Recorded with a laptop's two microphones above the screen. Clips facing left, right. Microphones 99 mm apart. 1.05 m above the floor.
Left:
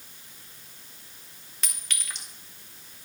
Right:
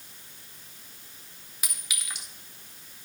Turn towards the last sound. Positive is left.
turn(degrees=-10)  # may be behind; listen again after turning